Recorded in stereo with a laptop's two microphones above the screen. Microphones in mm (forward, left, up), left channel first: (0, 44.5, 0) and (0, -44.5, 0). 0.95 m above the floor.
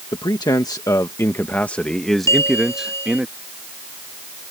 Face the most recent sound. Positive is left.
turn(degrees=35)  # may be behind; listen again after turning